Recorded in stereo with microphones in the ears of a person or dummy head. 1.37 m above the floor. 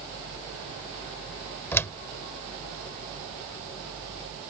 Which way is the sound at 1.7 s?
10° left (ahead or behind).